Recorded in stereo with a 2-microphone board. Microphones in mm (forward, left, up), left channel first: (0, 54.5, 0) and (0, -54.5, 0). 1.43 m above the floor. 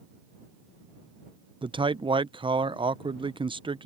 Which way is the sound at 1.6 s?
50° right (ahead or behind).